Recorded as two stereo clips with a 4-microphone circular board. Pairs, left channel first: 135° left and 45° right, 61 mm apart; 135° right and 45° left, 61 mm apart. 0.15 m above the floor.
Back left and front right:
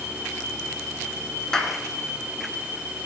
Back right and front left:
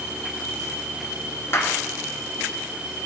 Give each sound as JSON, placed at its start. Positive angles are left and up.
{"t": 1.5, "sound": "a clap", "azimuth_deg": -150, "distance_m": 1.7}